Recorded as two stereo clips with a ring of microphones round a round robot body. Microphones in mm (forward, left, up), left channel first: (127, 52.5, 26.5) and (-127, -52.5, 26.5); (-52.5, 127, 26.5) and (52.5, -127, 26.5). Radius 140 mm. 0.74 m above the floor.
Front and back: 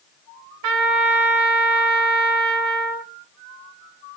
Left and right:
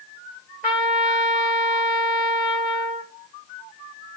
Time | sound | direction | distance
0.6 | a trumpet | 130° right | 1.6 m